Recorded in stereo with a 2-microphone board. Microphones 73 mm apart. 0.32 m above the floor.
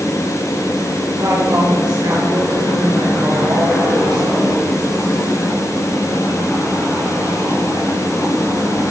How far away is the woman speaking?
About 7 m.